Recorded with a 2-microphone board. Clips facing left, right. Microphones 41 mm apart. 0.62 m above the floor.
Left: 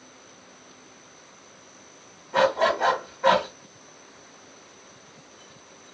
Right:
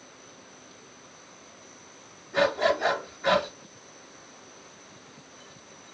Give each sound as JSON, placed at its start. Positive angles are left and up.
{"t": 2.3, "sound": "a dog barking", "side_deg": 75, "distance_m": 1.6}